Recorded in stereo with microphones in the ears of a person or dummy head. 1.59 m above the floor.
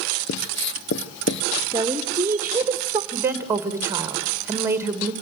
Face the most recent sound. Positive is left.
turn(degrees=-15)  # may be behind; listen again after turning